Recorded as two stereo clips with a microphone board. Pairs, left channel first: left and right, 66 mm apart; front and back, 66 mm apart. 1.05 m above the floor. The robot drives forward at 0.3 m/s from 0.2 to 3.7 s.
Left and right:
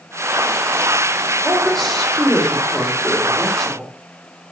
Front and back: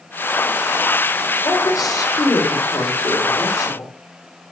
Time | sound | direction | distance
1.4 | a woman speaking | 5° left | 3.5 m